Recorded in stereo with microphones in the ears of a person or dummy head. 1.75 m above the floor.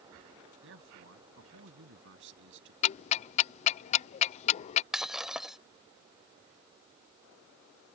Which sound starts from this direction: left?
Ticking, at 2.8 s.